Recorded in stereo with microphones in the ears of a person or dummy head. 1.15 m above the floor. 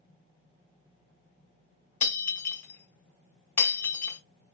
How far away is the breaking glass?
About 1.9 m.